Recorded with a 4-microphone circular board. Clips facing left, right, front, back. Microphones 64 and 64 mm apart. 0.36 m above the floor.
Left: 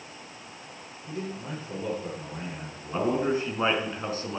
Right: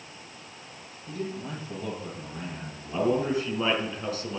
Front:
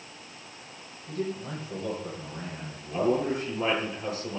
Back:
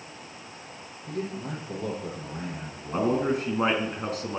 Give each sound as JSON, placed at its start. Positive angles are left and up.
{"t": 1.1, "sound": "a man speaking", "azimuth_deg": 160, "distance_m": 9.5}
{"t": 2.9, "sound": "a man speaking", "azimuth_deg": 150, "distance_m": 4.5}